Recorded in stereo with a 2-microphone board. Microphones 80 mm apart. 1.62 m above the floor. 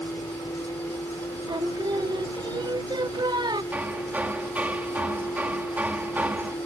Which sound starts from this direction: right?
Singing, at 1.5 s.